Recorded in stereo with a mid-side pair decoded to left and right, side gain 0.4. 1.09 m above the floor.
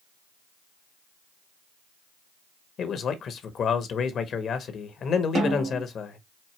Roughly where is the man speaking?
Ahead left.